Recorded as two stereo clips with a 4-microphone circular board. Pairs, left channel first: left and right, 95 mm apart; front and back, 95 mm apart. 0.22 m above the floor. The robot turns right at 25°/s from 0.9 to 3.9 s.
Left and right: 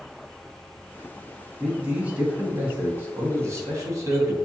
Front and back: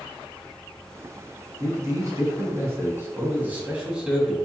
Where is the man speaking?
165° right, 1.1 m; by 4.3 s 110° right, 1.1 m.